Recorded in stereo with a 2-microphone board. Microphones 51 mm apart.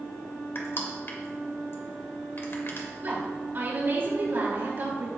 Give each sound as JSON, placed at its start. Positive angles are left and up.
{"t": 0.6, "sound": "crushing", "side_deg": 50, "distance_m": 1.9}
{"t": 3.0, "sound": "a woman speaking", "side_deg": -45, "distance_m": 3.5}